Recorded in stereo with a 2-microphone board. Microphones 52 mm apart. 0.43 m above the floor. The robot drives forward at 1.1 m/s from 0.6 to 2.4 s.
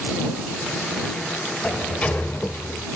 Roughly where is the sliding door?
Centre.